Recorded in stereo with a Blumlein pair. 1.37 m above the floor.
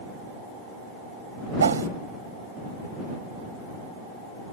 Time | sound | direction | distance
1.6 | a whoosh | 70° right | ?